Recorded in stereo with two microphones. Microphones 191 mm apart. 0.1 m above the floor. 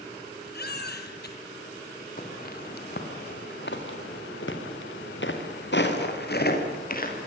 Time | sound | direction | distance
0.5 | a baby crying | 55° left (ahead or behind) | 2 m
2.2 | footsteps | 45° left (ahead or behind) | 5 m